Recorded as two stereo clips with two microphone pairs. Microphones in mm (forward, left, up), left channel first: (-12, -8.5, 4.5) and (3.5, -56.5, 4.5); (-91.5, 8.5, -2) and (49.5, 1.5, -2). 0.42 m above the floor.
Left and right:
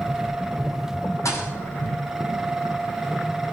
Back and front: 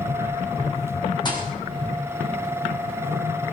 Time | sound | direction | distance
1.2 | a thud | 120° left | 6.5 m